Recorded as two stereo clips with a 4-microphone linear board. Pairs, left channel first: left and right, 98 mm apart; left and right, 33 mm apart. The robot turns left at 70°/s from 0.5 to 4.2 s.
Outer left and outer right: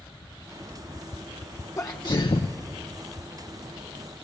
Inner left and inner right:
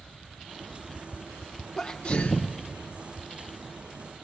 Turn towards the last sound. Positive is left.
turn(degrees=-25)